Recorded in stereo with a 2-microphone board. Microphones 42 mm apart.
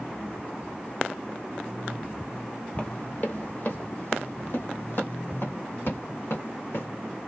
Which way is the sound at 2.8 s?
35° left (ahead or behind).